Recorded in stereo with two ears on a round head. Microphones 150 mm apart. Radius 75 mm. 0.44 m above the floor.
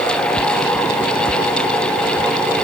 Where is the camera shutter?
I don't hear a camera shutter.